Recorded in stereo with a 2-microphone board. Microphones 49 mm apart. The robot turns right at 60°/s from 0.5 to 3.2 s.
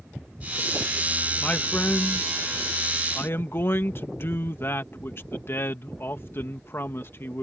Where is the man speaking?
20° left; by 7.4 s 130° left.